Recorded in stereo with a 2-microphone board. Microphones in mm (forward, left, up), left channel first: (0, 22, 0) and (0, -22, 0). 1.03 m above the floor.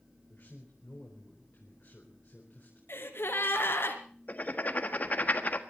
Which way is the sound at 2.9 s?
65° left (ahead or behind).